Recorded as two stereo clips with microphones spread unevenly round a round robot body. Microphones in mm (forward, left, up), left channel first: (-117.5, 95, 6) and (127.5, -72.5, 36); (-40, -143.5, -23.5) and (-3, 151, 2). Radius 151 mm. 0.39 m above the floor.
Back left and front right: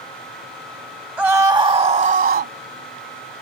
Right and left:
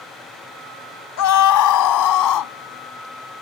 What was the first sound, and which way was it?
A scream, 120° right.